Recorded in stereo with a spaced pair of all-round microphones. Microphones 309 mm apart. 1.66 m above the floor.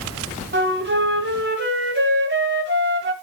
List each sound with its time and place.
0.5 s a flute: 35° right (ahead or behind), 1.9 m